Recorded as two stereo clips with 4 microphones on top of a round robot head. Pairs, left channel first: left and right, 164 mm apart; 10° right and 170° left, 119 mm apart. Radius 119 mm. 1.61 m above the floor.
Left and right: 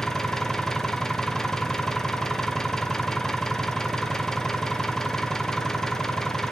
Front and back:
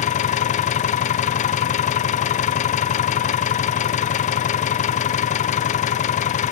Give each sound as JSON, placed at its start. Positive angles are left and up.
{"t": 0.0, "sound": "an engine running", "azimuth_deg": 5, "distance_m": 0.8}